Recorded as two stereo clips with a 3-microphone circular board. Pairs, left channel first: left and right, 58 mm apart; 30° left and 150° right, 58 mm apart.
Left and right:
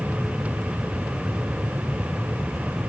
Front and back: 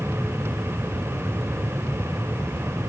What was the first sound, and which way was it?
Only background noise.